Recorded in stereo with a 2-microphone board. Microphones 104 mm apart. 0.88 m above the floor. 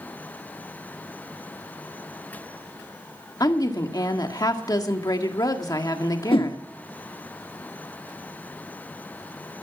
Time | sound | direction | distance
3.4 | a woman speaking | 40° left (ahead or behind) | 1.8 m
6.3 | a whoosh | 60° left (ahead or behind) | 1.3 m